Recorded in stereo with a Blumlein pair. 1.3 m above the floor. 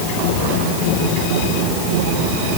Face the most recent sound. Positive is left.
No sound to turn to.